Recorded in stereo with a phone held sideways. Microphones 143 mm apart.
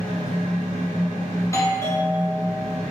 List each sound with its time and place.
0.0 s a fan: 50° right (ahead or behind), 1.3 m
1.4 s a doorbell: 20° left (ahead or behind), 0.6 m